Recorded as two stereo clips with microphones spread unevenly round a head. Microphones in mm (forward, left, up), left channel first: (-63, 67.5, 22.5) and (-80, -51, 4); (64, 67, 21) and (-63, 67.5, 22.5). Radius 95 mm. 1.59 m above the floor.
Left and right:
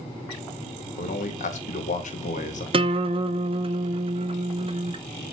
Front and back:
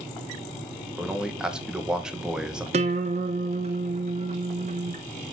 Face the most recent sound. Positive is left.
turn(degrees=-135)